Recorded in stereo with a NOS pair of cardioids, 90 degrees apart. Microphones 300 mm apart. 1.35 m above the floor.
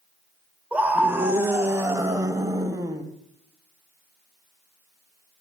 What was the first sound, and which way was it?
A scream, 5° right.